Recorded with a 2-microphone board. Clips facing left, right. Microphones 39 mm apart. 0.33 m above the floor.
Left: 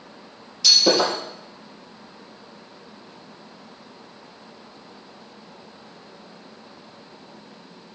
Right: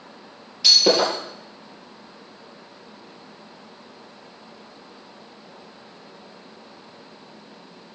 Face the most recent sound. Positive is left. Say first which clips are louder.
# right 1 dB
turn(degrees=-15)  # may be behind; listen again after turning